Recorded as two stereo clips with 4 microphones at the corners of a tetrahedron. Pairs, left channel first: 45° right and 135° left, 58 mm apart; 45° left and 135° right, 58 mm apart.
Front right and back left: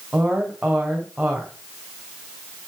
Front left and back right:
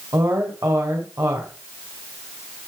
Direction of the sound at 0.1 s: 150° right.